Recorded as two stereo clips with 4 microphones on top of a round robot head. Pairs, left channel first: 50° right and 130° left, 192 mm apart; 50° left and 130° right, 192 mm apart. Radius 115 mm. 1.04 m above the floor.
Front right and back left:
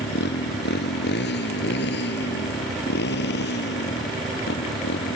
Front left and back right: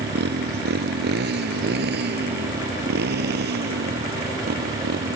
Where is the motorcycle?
90° right.